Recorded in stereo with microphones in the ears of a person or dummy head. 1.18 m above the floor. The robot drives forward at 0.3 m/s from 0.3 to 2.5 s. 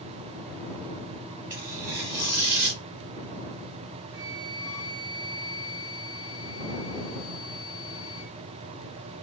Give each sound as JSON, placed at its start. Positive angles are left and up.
{"t": 1.5, "sound": "tearing paper", "side_deg": -20, "distance_m": 1.2}
{"t": 4.1, "sound": "a flute", "side_deg": 0, "distance_m": 0.8}